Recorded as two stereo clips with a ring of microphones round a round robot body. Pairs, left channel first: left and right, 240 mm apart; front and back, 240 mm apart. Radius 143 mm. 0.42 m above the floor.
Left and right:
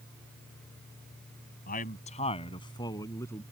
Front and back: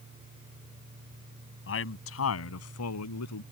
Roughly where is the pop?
I don't hear a pop.